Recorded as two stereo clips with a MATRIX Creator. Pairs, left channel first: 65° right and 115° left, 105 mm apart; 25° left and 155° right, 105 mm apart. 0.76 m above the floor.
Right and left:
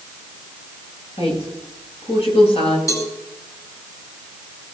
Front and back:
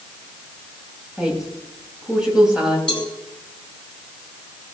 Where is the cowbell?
10° right, 4.5 m.